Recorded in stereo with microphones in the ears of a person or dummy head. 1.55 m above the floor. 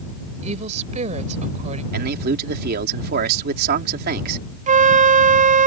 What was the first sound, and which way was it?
A woman speaking, 40° right (ahead or behind).